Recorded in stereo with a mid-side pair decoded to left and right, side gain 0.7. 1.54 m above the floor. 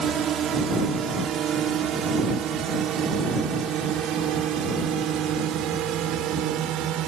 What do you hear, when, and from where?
0.0 s a drone: 40° right; by 7.1 s 55° right